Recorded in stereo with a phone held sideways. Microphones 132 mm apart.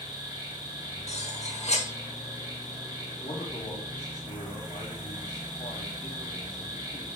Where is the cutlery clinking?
55° left (ahead or behind), 1.1 m.